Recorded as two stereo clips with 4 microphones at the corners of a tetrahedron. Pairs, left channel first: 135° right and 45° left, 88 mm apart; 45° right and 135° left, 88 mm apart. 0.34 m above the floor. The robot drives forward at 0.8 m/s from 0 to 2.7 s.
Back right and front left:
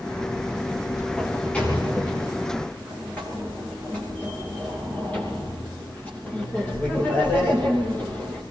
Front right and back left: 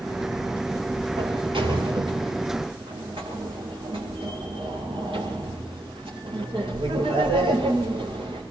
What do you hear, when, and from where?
1.2 s a sliding door: 145° left, 8 m; by 8.4 s 150° left, 9 m